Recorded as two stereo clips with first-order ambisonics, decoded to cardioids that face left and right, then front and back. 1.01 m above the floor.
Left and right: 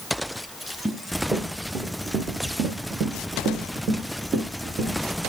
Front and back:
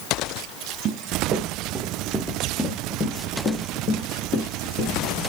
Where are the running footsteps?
165° right, 1.3 m; by 5.0 s 40° right, 2 m.